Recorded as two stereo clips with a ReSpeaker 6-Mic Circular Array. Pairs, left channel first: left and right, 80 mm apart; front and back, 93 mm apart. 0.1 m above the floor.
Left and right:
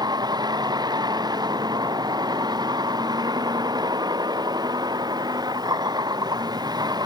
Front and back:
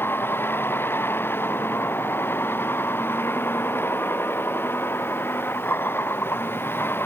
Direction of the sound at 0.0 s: 65° right.